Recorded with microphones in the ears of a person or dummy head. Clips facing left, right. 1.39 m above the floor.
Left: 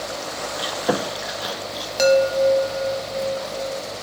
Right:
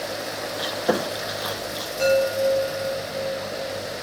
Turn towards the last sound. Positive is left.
turn(degrees=80)